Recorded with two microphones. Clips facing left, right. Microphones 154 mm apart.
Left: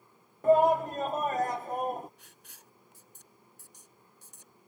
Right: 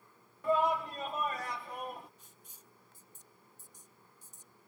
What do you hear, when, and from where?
0.4 s a shout: 45° left (ahead or behind)
2.2 s writing: 70° left (ahead or behind)